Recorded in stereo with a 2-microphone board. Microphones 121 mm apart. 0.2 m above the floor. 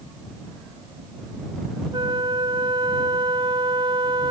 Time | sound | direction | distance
1.9 | a flute | 40° right (ahead or behind) | ?